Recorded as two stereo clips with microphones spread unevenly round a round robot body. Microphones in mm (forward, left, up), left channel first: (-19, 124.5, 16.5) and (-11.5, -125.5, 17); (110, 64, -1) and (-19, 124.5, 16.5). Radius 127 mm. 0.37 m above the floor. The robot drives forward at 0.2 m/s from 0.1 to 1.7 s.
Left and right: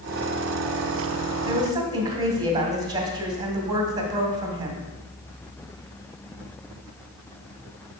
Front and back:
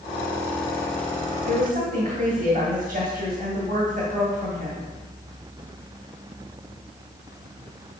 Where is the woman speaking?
160° right, 1.6 m.